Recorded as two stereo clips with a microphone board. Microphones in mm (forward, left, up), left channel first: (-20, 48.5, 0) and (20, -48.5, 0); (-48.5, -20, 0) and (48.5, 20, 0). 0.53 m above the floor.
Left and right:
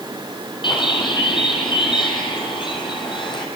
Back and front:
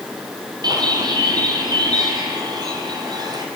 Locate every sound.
0.6 s a bird: 70° left, 4.5 m